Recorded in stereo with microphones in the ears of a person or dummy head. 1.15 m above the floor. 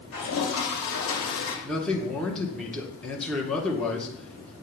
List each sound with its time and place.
0.1 s a toilet flushing: 80° left, 2 m
1.6 s a man speaking: 5° left (ahead or behind), 1.1 m